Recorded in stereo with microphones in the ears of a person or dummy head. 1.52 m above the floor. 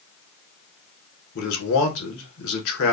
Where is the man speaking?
70° left (ahead or behind), 1.6 m.